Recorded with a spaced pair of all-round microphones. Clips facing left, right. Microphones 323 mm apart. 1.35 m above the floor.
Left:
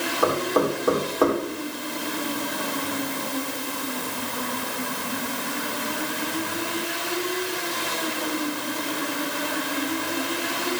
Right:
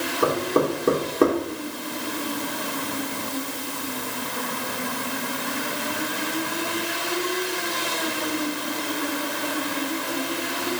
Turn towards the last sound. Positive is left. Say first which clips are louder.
# right 1 dB
turn(degrees=-30)  # may be behind; listen again after turning